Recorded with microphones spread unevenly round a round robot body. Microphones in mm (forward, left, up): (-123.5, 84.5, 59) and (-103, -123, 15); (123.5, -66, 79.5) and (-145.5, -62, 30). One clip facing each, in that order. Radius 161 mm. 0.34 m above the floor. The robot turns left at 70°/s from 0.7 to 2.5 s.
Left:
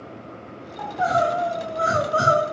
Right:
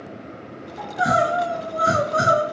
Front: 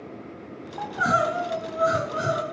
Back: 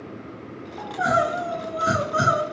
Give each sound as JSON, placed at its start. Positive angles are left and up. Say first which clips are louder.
{"t": 0.8, "sound": "crying", "louder": "right 1 dB, back 2 dB", "azimuth_deg": -55, "distance_m": 1.3}